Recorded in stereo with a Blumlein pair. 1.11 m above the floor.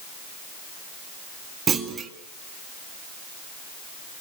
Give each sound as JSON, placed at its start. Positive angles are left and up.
{"t": 1.7, "sound": "a clunk", "azimuth_deg": -20, "distance_m": 2.0}